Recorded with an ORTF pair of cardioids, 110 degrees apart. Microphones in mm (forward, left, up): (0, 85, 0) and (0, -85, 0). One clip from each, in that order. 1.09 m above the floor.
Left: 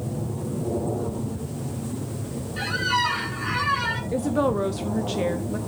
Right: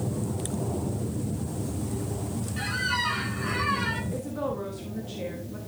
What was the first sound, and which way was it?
A squeak, 20° left.